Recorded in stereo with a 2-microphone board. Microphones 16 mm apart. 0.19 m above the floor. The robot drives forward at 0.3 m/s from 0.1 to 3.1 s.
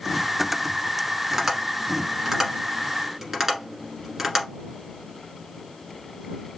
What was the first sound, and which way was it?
Tapping, 30° right (ahead or behind).